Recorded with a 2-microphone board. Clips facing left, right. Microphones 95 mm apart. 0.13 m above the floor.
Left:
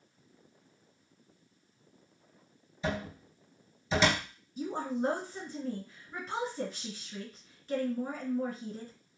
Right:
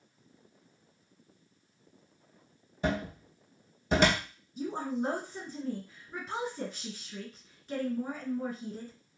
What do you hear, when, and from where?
2.8 s a cupboard door: 60° right (ahead or behind), 0.6 m
4.6 s a woman speaking: centre (ahead or behind), 1.6 m